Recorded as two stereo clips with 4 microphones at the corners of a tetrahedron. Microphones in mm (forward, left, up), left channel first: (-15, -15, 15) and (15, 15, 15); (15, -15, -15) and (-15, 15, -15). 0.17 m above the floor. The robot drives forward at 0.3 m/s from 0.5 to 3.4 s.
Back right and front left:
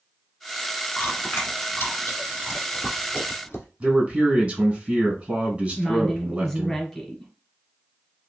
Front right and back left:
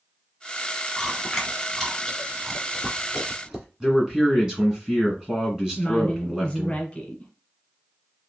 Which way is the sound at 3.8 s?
75° left.